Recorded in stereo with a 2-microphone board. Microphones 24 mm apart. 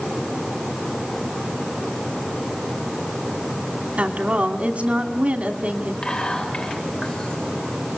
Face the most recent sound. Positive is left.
turn(degrees=50)  # may be behind; listen again after turning